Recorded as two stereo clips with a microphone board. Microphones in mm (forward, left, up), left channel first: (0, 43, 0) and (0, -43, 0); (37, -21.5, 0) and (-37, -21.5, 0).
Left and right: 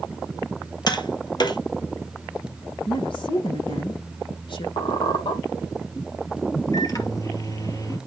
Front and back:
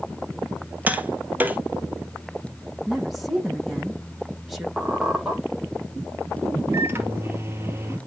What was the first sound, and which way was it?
Tapping, 115° left.